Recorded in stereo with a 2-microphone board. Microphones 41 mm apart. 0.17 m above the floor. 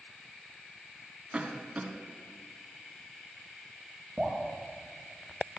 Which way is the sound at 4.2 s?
20° right (ahead or behind).